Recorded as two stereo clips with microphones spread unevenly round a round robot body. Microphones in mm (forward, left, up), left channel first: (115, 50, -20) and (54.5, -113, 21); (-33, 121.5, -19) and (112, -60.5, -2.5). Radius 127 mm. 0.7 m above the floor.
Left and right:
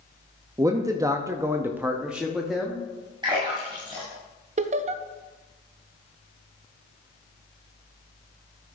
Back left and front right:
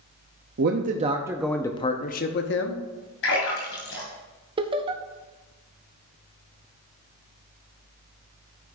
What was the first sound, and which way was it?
A man speaking, 30° right.